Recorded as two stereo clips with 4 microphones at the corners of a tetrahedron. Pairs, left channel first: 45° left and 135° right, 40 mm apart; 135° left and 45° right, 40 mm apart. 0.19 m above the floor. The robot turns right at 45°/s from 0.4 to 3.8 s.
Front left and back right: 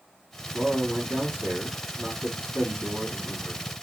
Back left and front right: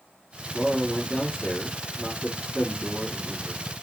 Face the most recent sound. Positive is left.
turn(degrees=-25)